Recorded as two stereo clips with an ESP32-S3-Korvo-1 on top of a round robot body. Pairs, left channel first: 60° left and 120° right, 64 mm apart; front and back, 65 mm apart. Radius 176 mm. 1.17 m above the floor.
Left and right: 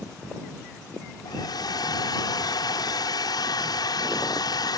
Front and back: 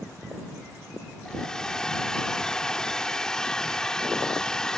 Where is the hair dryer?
80° left.